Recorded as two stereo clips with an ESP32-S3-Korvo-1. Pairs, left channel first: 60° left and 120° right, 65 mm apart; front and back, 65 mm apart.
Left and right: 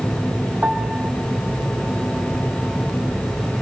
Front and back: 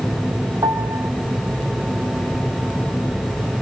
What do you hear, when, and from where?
0.6 s a piano: 165° left, 1.0 m